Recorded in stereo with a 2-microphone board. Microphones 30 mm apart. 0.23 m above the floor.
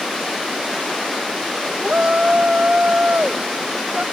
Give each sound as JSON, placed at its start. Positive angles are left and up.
{"t": 1.8, "sound": "a shout", "side_deg": -60}